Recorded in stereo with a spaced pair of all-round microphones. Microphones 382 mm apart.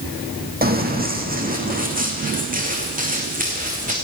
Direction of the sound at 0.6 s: 25° right (ahead or behind).